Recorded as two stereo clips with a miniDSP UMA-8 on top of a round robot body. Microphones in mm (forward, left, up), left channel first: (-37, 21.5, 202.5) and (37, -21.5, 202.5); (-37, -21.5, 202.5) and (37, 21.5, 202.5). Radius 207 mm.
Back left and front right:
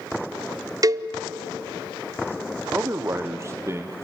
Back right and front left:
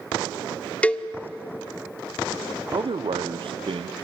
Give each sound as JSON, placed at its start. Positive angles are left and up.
{"t": 0.8, "sound": "a cowbell", "azimuth_deg": -75, "distance_m": 0.8}
{"t": 2.7, "sound": "a man speaking", "azimuth_deg": 25, "distance_m": 0.9}